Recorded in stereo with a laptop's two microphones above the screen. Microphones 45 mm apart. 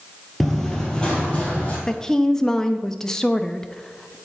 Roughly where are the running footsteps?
Centre.